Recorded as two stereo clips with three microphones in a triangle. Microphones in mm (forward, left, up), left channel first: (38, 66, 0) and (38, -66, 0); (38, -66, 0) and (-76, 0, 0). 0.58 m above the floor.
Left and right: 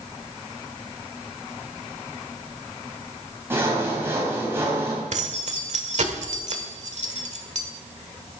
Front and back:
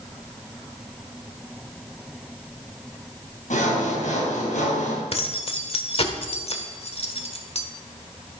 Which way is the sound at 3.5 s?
20° right.